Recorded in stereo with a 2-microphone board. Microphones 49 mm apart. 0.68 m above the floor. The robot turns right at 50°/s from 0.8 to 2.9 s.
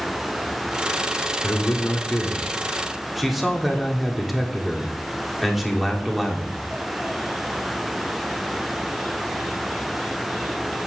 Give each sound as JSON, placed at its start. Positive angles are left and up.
{"t": 1.4, "sound": "a man speaking", "azimuth_deg": 110, "distance_m": 1.7}